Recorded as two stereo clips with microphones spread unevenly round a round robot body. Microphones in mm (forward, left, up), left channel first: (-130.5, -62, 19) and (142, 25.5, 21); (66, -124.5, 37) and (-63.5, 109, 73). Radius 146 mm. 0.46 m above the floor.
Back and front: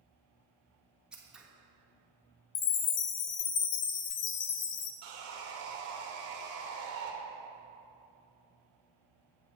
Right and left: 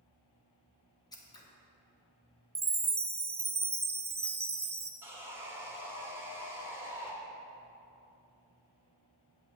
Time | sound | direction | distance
1.1 | scissors | 65° right | 1.4 m
2.5 | a chime | 155° right | 0.7 m
5.0 | sawing | 35° left | 1.8 m